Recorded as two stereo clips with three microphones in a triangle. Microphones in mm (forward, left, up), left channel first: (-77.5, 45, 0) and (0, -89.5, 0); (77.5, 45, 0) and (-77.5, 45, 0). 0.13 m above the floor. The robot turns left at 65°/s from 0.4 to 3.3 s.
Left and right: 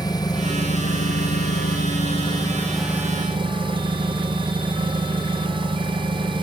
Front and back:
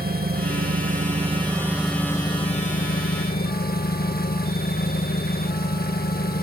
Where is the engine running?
175° right, 1.4 m; by 6.4 s 5° right, 1.4 m.